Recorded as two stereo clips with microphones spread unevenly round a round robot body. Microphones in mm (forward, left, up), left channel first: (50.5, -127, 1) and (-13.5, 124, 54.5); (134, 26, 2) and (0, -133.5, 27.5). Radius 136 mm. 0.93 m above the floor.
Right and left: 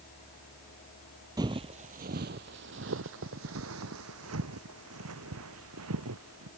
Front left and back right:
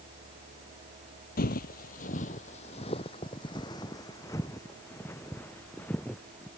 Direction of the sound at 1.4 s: 60° left.